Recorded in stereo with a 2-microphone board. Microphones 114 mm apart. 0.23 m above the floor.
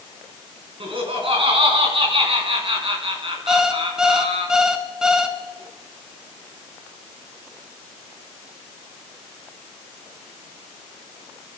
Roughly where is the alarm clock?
Centre.